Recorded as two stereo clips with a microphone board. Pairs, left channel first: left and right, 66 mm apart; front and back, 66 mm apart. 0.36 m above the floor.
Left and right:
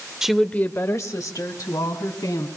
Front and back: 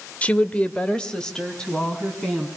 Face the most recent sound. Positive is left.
turn(degrees=85)